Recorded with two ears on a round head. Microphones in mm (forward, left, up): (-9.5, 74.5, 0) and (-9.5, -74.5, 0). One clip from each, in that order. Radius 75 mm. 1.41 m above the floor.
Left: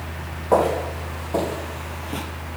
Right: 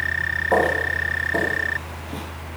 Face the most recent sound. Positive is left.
turn(degrees=25)  # may be behind; listen again after turning